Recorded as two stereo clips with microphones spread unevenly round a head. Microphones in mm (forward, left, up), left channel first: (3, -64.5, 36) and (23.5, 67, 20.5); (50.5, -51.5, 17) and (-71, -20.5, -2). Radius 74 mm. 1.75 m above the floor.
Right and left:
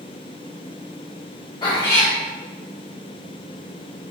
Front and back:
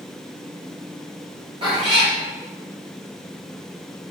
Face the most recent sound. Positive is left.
turn(degrees=-150)